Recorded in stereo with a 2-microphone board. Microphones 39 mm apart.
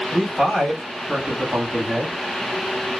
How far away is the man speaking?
About 1.4 m.